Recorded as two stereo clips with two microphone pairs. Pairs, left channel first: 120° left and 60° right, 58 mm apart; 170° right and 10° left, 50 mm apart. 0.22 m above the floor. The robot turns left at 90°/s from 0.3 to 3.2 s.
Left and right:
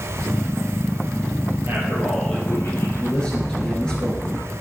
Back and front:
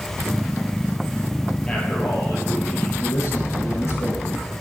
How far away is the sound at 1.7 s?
About 4.5 m.